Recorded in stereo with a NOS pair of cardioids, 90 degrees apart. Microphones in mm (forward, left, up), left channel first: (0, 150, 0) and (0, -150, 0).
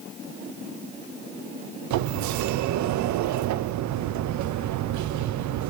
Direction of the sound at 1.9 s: 70° right.